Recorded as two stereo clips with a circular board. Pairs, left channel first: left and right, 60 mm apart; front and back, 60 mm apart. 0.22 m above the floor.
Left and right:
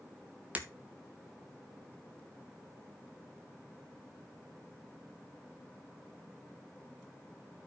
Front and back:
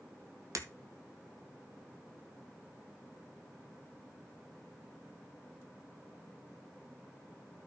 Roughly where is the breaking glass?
Behind right.